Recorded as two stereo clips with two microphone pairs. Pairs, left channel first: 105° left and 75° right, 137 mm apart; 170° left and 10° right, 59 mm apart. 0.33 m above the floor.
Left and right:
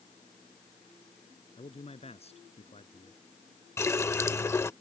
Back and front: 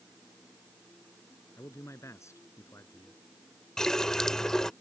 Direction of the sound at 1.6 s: 140° left.